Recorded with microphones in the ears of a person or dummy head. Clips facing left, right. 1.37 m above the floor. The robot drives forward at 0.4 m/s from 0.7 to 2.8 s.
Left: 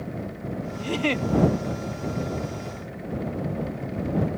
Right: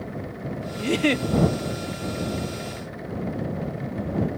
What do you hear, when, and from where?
0.8 s a giggle: 30° right (ahead or behind); by 1.3 s 25° right (ahead or behind)